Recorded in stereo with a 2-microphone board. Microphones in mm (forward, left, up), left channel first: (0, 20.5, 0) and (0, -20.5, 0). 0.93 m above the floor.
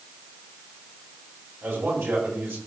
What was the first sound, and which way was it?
A man speaking, 80° right.